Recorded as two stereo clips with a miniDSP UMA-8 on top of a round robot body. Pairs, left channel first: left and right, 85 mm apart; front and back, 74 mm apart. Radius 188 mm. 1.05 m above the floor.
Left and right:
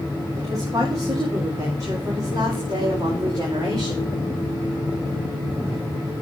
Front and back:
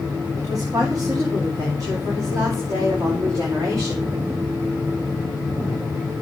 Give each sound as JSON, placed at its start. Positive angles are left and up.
{"t": 0.4, "sound": "a woman speaking", "azimuth_deg": -140, "distance_m": 3.5}